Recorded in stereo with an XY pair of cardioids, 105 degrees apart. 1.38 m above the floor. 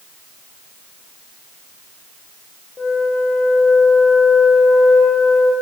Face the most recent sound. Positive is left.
turn(degrees=30)